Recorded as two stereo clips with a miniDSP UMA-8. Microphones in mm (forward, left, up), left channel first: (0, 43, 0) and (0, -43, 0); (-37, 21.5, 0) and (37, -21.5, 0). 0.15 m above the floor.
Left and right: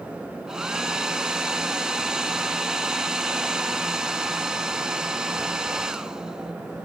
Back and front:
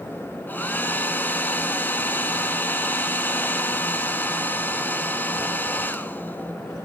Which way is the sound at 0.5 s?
165° right.